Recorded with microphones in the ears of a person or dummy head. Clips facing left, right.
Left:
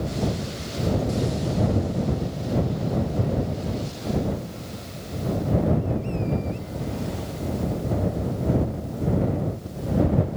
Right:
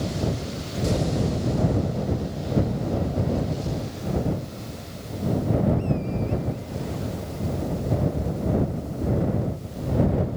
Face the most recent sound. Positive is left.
No sound to turn to.